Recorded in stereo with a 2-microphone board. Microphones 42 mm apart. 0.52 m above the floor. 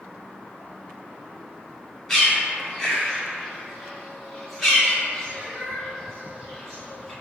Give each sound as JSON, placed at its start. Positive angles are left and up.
{"t": 2.1, "sound": "a bird", "side_deg": 15, "distance_m": 0.9}